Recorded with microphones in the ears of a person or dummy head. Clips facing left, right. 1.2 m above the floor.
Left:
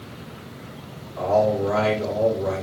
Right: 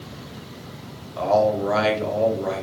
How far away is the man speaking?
About 1.0 m.